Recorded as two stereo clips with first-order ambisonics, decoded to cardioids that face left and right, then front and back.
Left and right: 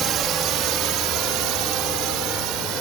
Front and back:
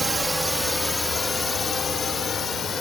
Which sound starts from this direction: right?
A drone, at 0.0 s.